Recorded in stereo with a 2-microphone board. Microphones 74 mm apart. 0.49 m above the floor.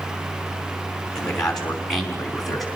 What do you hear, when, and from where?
1.1 s a man speaking: 10° left (ahead or behind), 5.5 m; by 2.7 s centre (ahead or behind), 5 m